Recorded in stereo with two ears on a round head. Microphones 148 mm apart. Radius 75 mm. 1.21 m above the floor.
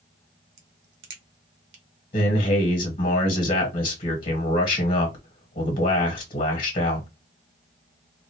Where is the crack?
70° right (ahead or behind), 1.0 m.